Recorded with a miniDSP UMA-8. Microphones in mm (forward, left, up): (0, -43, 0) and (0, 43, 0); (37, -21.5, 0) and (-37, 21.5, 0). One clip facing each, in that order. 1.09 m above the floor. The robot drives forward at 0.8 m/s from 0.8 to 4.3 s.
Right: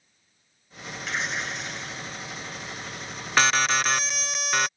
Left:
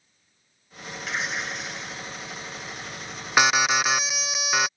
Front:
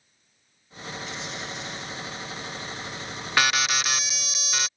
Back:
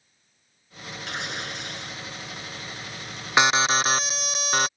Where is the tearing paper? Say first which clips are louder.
Even, back 6 dB; 175° left.